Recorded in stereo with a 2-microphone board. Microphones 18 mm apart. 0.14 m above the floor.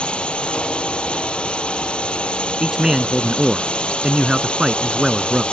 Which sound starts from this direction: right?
A man speaking, at 2.6 s.